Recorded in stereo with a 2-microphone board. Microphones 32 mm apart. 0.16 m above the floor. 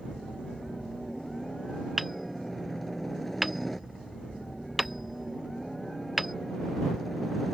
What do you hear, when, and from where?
0.0 s a helicopter: 5° left (ahead or behind)
2.0 s hammering: 5° right (ahead or behind)